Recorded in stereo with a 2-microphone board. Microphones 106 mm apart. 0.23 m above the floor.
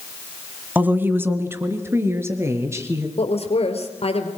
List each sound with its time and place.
0.8 s a woman speaking: 15° right (ahead or behind), 1.8 m; by 3.1 s 25° right (ahead or behind), 5 m
3.2 s a woman speaking: 65° left (ahead or behind), 4 m